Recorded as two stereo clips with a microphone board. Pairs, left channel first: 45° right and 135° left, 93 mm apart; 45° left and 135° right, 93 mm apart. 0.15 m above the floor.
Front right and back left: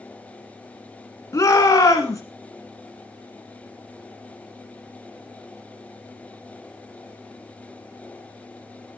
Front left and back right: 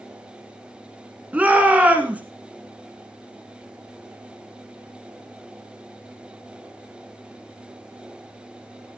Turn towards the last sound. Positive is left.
turn(degrees=-70)